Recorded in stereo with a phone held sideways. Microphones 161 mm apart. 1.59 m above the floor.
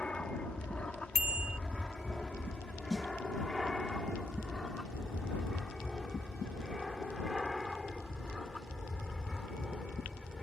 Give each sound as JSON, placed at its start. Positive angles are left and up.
{"t": 0.0, "sound": "an aircraft", "side_deg": 5}
{"t": 1.1, "sound": "a bicycle bell", "side_deg": -75}
{"t": 2.9, "sound": "a snare drum", "side_deg": 0}